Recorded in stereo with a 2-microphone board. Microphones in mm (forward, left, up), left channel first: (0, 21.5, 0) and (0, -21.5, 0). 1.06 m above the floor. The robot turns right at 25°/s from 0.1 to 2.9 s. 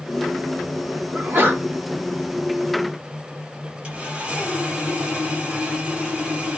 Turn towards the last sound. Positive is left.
turn(degrees=-25)  # may be behind; listen again after turning